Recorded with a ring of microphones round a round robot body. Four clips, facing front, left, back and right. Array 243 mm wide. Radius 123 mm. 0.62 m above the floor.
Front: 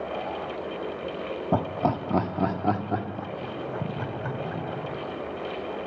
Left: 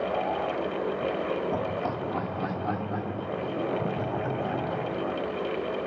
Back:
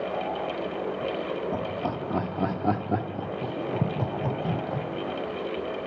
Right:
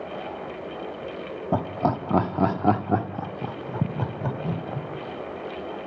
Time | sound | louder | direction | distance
1.5 | laughter | right 4 dB, front 4 dB | 45° right | 1.4 m